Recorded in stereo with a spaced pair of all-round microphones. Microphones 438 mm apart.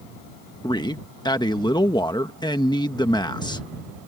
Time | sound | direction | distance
0.6 | a man speaking | 10° left (ahead or behind) | ?